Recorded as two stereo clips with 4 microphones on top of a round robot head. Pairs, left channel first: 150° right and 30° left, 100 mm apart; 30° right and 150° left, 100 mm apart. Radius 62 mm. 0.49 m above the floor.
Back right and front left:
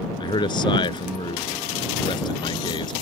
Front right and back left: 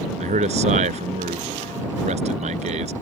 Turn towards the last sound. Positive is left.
turn(degrees=165)